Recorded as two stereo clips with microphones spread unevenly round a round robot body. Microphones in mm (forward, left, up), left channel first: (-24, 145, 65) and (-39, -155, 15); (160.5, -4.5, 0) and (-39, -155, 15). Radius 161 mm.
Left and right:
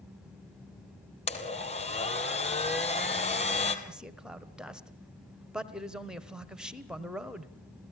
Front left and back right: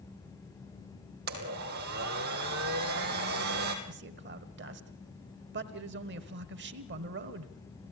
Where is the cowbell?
No cowbell in this recording.